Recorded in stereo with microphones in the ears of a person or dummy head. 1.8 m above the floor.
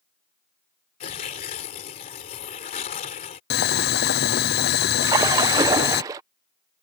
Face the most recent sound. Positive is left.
turn(degrees=-20)  # may be behind; listen again after turning